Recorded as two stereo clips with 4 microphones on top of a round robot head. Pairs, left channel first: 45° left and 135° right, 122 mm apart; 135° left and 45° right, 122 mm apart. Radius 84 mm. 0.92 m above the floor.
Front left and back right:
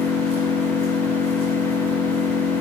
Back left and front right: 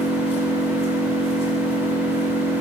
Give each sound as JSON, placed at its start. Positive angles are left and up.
{"t": 0.0, "sound": "an engine running", "azimuth_deg": 180, "distance_m": 7.5}